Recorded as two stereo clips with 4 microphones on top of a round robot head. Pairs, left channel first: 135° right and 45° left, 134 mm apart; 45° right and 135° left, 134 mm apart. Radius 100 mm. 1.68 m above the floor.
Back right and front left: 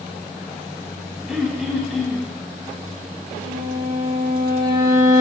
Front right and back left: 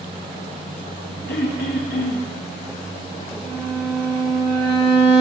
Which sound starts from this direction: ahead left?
A violin, at 3.4 s.